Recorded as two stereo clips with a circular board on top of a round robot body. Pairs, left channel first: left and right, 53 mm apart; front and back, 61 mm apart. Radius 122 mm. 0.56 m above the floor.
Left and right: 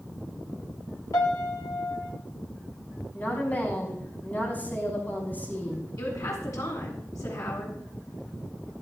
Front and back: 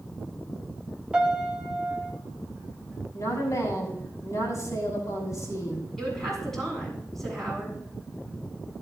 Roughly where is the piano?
Left.